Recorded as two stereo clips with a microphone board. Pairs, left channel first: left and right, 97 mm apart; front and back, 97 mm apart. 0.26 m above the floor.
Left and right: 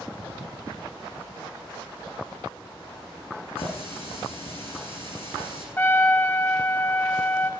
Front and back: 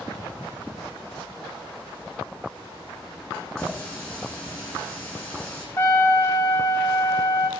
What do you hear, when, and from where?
3.6 s a running tap: 70° left, 7.5 m
5.8 s a trumpet: 30° left, 1.8 m